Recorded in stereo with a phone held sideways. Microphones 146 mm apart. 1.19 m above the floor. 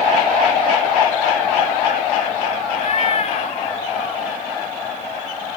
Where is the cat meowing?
50° left (ahead or behind), 1.4 m.